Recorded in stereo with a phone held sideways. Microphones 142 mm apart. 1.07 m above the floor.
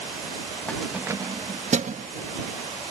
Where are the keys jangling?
10° left (ahead or behind); by 2.1 s 65° right (ahead or behind).